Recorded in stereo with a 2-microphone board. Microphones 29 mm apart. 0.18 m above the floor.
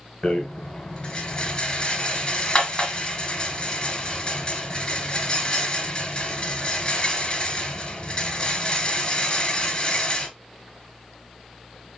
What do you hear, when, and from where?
0.2 s a rattle: 25° left (ahead or behind), 1.4 m